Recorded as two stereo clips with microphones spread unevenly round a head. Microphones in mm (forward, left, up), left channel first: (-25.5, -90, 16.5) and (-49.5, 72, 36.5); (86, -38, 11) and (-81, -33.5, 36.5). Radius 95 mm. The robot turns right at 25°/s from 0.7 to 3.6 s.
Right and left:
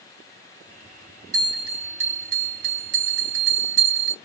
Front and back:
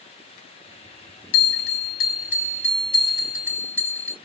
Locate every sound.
1.3 s a bell: 25° left, 0.8 m; by 4.1 s 85° left, 0.8 m